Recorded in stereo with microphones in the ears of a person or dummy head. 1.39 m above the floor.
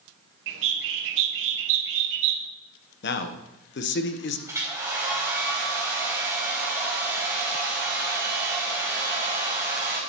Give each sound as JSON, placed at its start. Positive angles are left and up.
{"t": 0.5, "sound": "a bird", "side_deg": -65, "distance_m": 0.9}
{"t": 3.0, "sound": "a man speaking", "side_deg": 60, "distance_m": 0.9}
{"t": 4.5, "sound": "a hair dryer", "side_deg": -15, "distance_m": 3.0}